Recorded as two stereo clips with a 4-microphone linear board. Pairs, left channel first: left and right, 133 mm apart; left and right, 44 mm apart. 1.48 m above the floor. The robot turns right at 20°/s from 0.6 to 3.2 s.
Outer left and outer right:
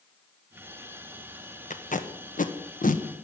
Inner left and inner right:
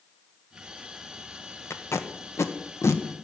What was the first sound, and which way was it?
Tape being pulled, 65° left (ahead or behind).